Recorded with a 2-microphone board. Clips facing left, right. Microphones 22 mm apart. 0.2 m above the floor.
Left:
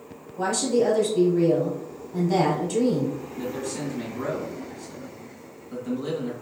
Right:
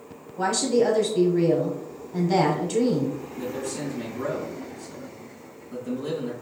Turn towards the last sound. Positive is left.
turn(degrees=35)  # may be behind; listen again after turning